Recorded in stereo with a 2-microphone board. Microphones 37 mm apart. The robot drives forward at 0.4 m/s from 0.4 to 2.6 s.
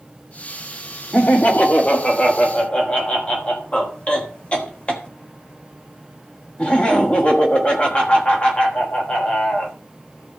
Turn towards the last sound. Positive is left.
turn(degrees=25)  # may be behind; listen again after turning